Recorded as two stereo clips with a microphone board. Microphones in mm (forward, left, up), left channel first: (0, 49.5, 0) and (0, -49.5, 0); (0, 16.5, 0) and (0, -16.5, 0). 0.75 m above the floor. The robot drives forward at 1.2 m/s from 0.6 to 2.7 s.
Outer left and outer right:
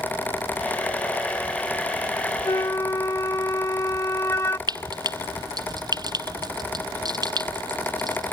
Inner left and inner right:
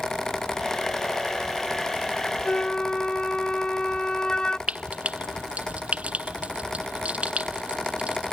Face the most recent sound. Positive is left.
turn(degrees=-45)  # may be behind; listen again after turning